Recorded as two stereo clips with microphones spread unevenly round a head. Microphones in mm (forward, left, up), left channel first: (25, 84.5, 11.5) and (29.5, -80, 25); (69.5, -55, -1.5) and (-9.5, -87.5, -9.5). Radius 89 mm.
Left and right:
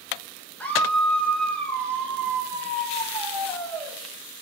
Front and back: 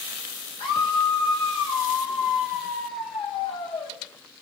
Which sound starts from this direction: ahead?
A scream, at 0.6 s.